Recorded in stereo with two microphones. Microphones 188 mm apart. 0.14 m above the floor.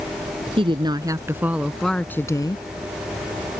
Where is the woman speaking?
30° right (ahead or behind); by 2.6 s 25° left (ahead or behind).